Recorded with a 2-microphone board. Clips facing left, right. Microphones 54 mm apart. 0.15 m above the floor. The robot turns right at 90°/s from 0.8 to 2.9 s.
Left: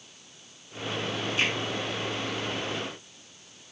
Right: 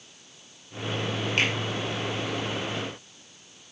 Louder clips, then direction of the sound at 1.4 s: Right 2 dB; 65° right (ahead or behind).